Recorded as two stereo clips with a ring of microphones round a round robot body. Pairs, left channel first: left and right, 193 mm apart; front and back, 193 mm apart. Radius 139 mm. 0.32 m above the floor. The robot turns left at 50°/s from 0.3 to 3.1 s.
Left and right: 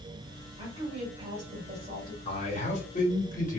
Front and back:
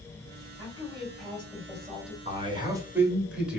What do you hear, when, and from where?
0.6 s a woman speaking: 55° right, 1.5 m; by 2.1 s 135° right, 1.5 m
2.2 s a man speaking: 140° left, 1.1 m; by 3.6 s 100° left, 1.1 m